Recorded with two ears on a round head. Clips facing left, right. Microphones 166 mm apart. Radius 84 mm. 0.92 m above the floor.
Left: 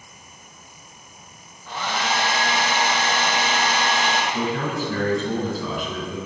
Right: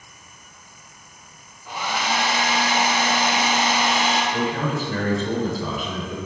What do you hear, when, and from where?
1.7 s a hair dryer: 10° right (ahead or behind), 1.0 m
4.3 s a man speaking: 45° right (ahead or behind), 3 m